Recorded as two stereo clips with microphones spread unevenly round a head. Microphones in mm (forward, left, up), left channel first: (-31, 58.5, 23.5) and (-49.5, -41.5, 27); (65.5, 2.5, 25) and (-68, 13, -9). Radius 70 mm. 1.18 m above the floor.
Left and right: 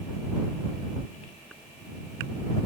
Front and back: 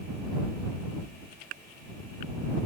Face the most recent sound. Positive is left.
No sound to turn to.